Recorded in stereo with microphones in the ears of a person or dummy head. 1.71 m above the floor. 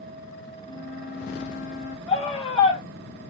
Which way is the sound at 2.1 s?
35° left (ahead or behind).